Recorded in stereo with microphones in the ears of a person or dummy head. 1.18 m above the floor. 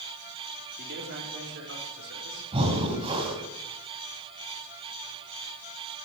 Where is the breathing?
30° right (ahead or behind), 2.5 m.